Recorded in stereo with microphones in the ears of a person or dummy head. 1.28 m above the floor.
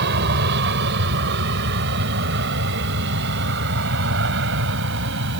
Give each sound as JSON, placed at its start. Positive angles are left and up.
{"t": 0.0, "sound": "an aircraft", "side_deg": -60}